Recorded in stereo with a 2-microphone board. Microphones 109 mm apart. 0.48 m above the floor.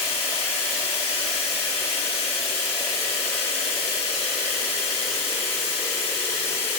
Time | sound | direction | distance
0.0 | running water | 55° right (ahead or behind) | 5 m